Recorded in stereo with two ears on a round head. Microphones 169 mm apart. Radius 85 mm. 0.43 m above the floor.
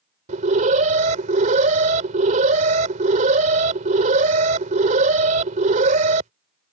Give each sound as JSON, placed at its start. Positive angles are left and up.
{"t": 0.3, "sound": "an alarm", "side_deg": -40}